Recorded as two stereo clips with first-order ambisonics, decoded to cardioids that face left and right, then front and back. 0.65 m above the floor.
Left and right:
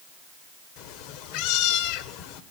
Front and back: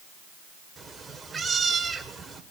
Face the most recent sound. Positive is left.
turn(degrees=105)